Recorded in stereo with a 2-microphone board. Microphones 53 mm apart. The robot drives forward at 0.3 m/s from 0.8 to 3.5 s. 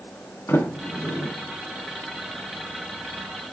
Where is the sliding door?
60° left (ahead or behind), 2.5 m; by 1.3 s 65° left (ahead or behind), 2.5 m.